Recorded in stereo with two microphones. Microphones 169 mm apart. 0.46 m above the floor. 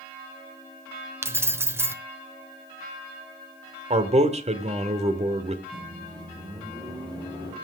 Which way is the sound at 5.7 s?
30° right (ahead or behind).